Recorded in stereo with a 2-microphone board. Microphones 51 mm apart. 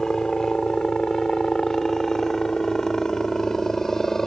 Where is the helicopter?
10° left (ahead or behind).